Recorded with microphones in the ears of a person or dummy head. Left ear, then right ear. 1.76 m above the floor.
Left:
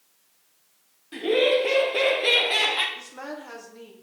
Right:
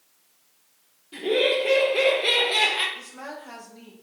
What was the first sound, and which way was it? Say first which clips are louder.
Laughter: left 1 dB; 65° left (ahead or behind).